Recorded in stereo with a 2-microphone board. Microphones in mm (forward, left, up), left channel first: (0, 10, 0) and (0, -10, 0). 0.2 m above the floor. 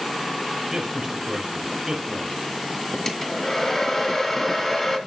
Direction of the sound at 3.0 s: 25° left (ahead or behind).